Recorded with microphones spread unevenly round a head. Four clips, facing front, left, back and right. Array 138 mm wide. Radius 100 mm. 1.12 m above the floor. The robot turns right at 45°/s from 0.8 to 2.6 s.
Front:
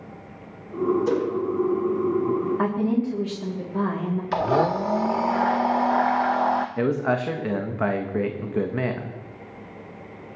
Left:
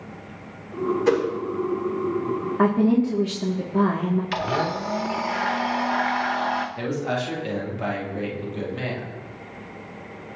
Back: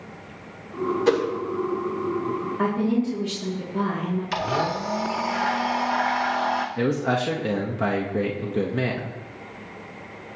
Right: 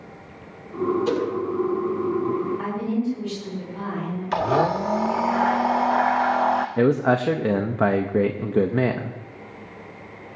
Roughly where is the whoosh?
Behind left.